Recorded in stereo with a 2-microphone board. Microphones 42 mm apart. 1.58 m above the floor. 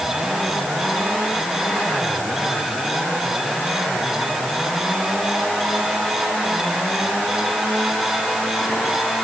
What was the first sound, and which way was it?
Only background noise.